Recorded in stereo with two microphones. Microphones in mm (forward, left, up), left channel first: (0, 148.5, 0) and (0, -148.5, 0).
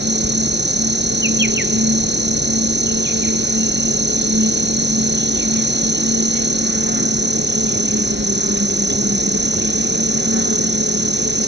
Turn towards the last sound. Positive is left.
turn(degrees=-35)  # may be behind; listen again after turning